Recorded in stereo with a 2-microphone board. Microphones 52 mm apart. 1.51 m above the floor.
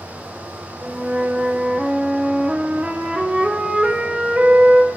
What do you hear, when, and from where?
0.8 s a flute: 25° right (ahead or behind), 0.6 m